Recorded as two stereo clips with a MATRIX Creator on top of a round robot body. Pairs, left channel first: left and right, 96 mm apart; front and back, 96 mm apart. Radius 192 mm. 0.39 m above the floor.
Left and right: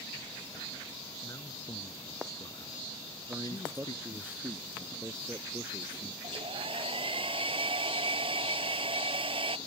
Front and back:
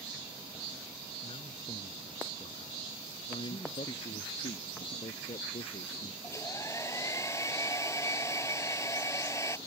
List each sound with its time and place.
1.2 s a man speaking: 30° left; by 4.3 s 45° left
3.3 s a man speaking: 20° right
6.2 s a hair dryer: 60° right